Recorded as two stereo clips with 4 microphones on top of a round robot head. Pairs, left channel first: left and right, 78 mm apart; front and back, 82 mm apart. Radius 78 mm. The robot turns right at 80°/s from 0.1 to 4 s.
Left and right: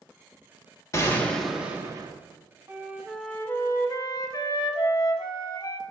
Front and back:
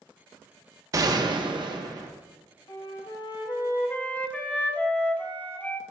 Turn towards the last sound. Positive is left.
turn(degrees=65)